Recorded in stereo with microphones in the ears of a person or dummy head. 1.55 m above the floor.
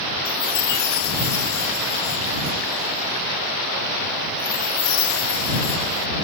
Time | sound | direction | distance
0.2 | a chime | 55° left (ahead or behind) | ?